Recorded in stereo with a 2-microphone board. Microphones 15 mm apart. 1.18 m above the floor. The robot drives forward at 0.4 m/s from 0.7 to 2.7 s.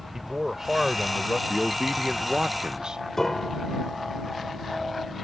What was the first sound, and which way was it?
A man speaking, 30° right (ahead or behind).